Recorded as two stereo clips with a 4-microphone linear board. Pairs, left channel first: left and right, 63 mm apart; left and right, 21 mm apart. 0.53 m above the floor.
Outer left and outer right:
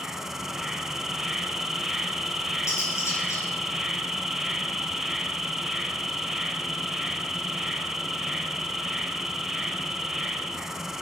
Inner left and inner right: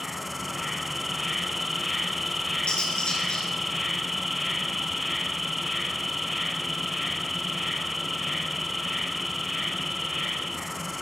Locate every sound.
0.0 s an insect: 5° right (ahead or behind), 1.0 m
2.7 s cutlery clinking: 50° left (ahead or behind), 4.5 m